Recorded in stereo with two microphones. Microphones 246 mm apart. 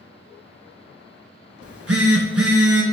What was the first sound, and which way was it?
A phone buzzing, 65° right (ahead or behind).